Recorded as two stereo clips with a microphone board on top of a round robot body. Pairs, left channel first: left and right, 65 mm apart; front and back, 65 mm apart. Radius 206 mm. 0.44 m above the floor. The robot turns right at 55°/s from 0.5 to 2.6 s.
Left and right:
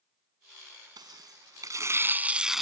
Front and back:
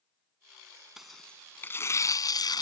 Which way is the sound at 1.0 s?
95° right.